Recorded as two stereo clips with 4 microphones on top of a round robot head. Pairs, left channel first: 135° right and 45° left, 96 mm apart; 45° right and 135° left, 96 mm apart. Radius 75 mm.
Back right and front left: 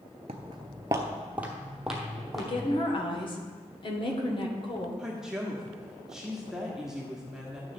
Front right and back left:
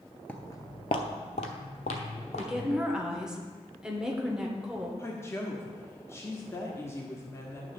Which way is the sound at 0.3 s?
30° left.